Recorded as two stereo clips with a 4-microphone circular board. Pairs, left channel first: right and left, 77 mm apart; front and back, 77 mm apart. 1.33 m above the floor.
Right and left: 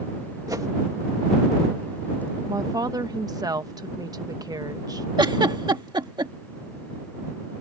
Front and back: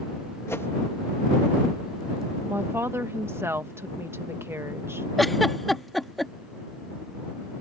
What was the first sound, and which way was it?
A whoosh, 55° left.